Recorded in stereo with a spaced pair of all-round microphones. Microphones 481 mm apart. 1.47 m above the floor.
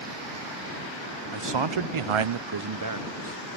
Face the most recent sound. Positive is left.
turn(degrees=-25)  # may be behind; listen again after turning